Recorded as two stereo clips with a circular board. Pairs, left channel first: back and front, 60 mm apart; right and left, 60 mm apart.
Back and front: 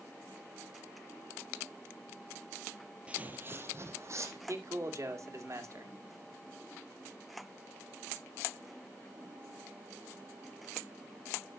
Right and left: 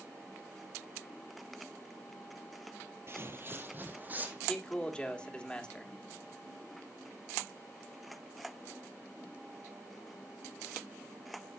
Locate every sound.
3.1 s footsteps: 65° left, 1.1 m; by 4.4 s 30° left, 2.5 m
4.5 s a man speaking: 15° right, 2.0 m